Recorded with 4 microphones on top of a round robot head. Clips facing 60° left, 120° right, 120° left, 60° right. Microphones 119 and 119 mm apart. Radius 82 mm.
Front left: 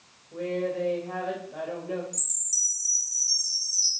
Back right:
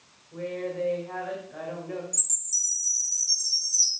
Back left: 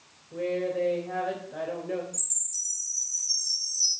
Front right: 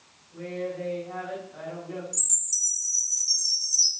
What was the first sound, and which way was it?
A woman speaking, 125° left.